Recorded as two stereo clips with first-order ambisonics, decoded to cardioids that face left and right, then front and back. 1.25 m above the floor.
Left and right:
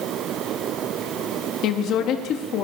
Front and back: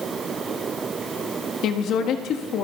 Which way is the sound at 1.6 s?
45° left.